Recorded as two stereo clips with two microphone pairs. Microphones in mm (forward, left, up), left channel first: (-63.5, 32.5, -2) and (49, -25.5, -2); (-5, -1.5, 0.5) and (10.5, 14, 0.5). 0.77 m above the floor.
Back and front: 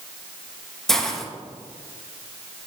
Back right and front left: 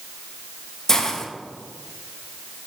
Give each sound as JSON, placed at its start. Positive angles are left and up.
{"t": 0.9, "sound": "a hiss", "azimuth_deg": -130, "distance_m": 1.1}